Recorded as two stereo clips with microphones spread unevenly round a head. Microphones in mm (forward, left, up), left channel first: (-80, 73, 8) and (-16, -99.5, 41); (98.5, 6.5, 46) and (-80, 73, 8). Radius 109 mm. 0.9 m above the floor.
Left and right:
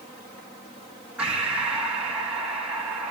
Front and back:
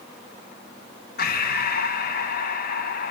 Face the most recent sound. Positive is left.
turn(degrees=15)